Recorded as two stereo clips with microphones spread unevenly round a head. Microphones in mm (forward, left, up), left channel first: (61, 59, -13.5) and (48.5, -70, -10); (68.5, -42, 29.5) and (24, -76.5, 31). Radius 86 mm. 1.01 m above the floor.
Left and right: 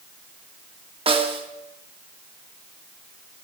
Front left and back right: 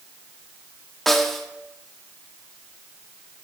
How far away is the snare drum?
About 0.9 m.